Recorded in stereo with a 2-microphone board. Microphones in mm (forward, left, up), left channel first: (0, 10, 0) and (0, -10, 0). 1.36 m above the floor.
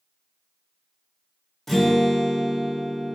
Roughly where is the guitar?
Centre.